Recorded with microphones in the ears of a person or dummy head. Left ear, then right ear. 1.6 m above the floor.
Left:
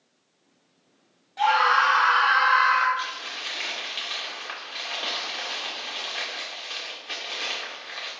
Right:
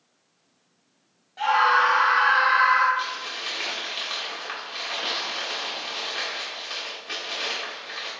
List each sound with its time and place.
1.4 s a scream: 20° left (ahead or behind), 0.9 m; by 2.9 s 40° left (ahead or behind), 1.6 m
3.0 s crumpling: 15° left (ahead or behind), 2 m